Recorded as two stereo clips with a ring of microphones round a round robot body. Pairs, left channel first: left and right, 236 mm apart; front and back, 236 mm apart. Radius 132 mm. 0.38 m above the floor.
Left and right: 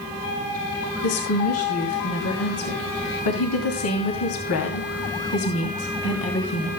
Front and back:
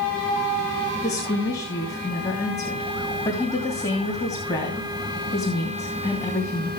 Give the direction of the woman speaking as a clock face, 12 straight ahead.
9 o'clock.